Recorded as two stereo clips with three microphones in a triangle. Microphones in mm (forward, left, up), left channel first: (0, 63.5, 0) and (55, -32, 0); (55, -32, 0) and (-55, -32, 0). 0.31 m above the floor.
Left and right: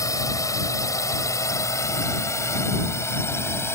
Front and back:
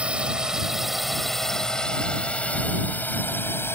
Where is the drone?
110° left; by 3.7 s 60° left.